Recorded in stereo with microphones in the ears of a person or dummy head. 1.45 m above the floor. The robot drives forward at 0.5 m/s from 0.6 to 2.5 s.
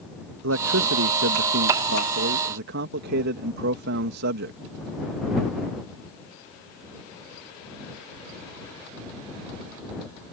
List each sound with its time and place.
0.4 s a man speaking: 85° right; by 4.6 s 70° right (ahead or behind)